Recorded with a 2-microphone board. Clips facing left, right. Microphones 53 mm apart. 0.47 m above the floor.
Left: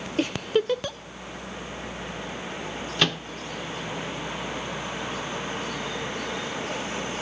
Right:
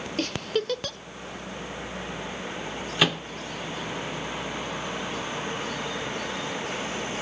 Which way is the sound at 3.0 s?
10° right (ahead or behind).